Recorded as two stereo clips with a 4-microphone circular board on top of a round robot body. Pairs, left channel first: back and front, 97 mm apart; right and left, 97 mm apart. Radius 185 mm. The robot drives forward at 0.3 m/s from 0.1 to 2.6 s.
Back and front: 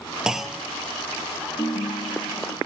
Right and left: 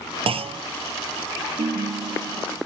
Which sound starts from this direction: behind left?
A ringtone, at 1.6 s.